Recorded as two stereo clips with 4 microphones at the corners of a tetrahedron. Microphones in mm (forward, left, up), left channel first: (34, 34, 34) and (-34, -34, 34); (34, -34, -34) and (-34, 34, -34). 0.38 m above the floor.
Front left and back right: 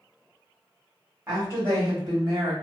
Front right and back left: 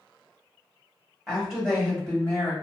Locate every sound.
1.3 s a woman speaking: 155° right, 1.4 m; by 2.5 s 105° right, 1.9 m